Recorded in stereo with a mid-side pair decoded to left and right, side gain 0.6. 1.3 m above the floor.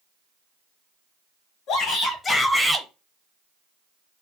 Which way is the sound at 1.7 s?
65° left.